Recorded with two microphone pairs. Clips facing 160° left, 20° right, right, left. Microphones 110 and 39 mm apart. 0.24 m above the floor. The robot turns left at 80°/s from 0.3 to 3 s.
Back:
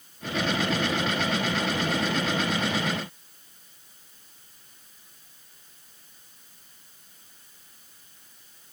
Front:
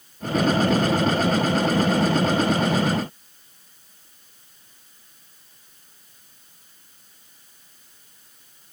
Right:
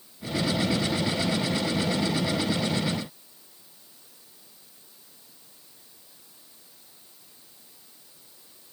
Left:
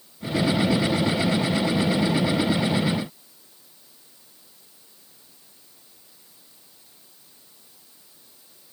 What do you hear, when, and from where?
Only background noise.